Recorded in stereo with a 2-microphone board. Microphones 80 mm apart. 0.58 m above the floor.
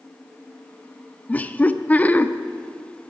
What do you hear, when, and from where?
1.3 s laughter: 20° left (ahead or behind), 0.6 m